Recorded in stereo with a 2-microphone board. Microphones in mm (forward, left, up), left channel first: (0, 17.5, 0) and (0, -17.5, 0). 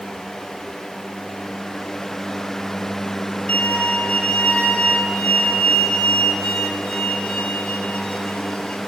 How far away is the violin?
About 1.4 m.